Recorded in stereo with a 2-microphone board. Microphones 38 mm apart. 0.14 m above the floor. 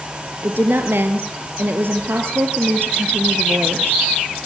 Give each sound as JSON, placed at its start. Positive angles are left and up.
{"t": 0.4, "sound": "a woman speaking", "side_deg": -65, "distance_m": 2.5}